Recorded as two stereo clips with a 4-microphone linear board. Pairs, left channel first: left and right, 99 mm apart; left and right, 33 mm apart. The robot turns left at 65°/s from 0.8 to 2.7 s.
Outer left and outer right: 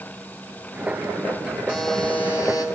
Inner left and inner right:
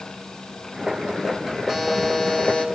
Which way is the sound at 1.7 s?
170° right.